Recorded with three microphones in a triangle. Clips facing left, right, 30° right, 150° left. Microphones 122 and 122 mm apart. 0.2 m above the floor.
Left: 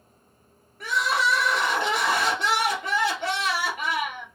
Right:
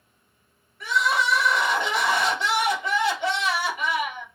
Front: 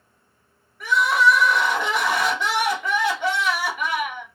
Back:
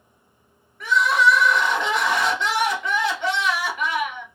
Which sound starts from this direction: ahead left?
Crying, at 0.8 s.